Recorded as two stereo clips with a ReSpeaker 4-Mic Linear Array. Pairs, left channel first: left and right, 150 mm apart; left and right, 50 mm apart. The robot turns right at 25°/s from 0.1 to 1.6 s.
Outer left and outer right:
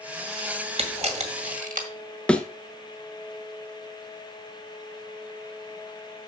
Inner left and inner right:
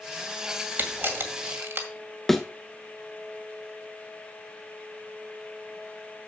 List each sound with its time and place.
0.8 s a camera shutter: 45° right (ahead or behind), 1.9 m; by 1.9 s 65° right (ahead or behind), 1.9 m
2.3 s a thud: 5° left (ahead or behind), 1.0 m